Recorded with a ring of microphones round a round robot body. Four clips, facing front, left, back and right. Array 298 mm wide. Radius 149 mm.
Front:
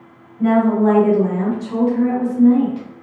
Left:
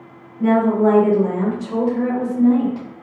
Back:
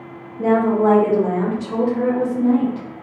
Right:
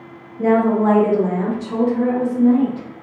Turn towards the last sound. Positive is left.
turn(degrees=110)